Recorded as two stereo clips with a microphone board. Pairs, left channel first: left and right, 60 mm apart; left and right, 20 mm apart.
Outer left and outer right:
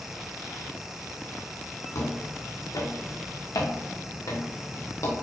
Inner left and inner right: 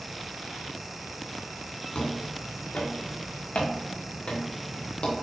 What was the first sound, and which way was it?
Footsteps, 70° left (ahead or behind).